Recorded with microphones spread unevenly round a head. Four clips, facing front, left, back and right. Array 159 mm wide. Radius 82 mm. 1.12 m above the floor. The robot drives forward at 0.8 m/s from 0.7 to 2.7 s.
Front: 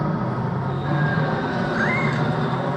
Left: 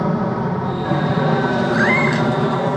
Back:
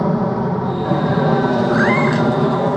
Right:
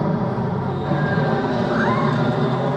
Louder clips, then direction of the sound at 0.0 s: Left 2 dB, back 7 dB; 170° left.